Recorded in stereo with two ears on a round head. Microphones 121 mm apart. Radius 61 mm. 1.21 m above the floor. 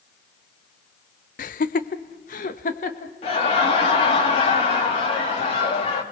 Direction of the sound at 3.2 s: 45° left (ahead or behind).